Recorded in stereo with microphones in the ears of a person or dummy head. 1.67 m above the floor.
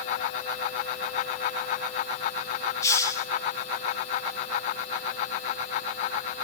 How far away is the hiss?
About 0.9 m.